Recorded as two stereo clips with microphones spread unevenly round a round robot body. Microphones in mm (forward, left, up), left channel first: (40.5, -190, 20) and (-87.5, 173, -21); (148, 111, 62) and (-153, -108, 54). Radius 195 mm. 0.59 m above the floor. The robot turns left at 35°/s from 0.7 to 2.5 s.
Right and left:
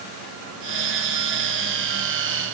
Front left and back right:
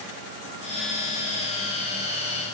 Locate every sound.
Only background noise.